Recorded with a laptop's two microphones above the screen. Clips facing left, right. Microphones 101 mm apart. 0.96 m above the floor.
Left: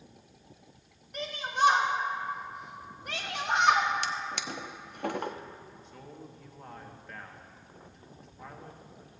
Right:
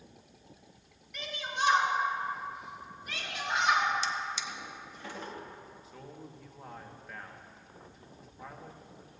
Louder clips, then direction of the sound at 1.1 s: Left 5 dB; 45° left (ahead or behind).